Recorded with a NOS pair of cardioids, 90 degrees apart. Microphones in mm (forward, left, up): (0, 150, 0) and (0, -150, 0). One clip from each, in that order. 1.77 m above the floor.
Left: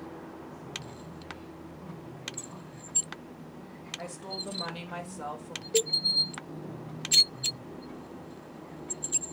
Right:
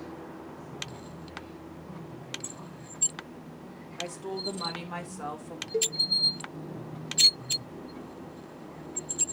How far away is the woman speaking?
About 2.5 m.